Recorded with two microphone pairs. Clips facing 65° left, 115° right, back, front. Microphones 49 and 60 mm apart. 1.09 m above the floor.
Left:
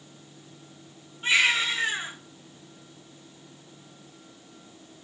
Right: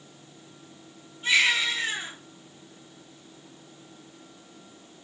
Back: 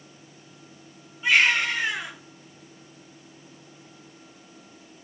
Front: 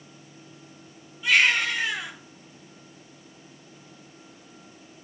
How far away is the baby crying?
About 5.5 m.